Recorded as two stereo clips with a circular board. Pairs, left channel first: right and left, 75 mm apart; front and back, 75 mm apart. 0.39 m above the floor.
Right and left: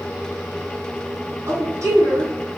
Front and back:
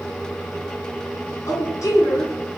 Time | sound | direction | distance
1.5 | a woman speaking | 45° left | 4 m